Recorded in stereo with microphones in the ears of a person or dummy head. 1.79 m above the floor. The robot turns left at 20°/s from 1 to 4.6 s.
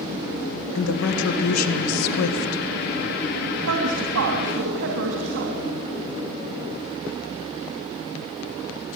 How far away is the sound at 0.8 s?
About 1.9 m.